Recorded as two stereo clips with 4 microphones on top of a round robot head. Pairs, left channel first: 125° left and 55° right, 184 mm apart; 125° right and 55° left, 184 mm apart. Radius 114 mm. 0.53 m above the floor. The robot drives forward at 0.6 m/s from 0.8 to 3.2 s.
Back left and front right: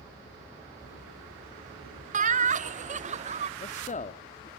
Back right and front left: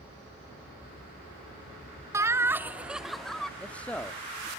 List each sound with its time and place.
2.1 s laughter: 15° right, 1.3 m; by 3.5 s 35° right, 0.8 m
3.6 s a man speaking: 155° left, 0.9 m